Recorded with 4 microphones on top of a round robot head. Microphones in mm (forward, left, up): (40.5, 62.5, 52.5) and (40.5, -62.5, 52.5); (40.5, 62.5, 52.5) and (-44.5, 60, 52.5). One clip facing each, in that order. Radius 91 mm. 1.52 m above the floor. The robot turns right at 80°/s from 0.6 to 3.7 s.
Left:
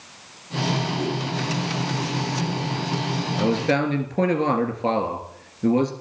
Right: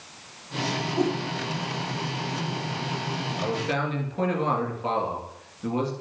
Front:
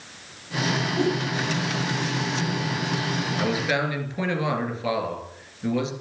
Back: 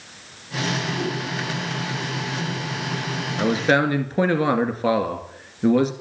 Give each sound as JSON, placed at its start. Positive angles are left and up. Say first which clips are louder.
{"t": 1.0, "sound": "a whoosh", "louder": "right 2 dB, front 4 dB", "azimuth_deg": -20, "distance_m": 5.5}
{"t": 3.4, "sound": "a man speaking", "louder": "left 7 dB, back 7 dB", "azimuth_deg": 120, "distance_m": 2.5}